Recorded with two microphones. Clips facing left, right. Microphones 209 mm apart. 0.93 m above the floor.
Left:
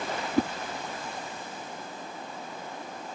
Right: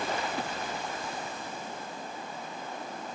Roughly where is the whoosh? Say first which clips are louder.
Left 10 dB; left.